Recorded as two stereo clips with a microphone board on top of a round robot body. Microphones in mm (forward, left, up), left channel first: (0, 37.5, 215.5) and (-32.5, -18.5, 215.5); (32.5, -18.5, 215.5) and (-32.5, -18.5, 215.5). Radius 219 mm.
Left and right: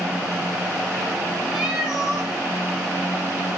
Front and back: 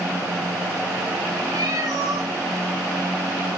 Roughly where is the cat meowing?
Behind.